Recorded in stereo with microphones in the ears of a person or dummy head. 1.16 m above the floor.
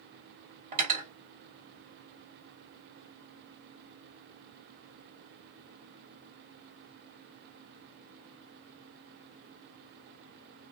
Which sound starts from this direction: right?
Cutlery clinking, at 0.7 s.